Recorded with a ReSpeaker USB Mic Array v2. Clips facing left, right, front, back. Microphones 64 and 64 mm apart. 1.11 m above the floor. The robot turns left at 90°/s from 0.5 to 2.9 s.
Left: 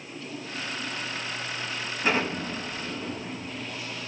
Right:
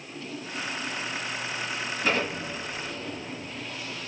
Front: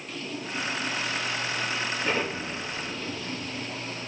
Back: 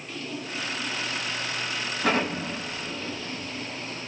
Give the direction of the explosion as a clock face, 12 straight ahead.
6 o'clock.